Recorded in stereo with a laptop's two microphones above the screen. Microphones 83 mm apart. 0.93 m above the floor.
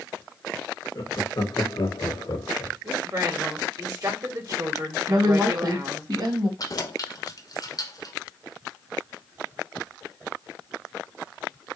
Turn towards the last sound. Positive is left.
turn(degrees=50)  # may be behind; listen again after turning